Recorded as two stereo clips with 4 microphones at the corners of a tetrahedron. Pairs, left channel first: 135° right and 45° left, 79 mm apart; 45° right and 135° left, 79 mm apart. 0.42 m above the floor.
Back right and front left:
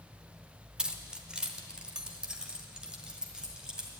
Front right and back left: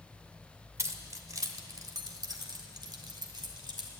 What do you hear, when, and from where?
0.8 s keys jangling: 115° left, 0.9 m; by 3.9 s 125° left, 2.5 m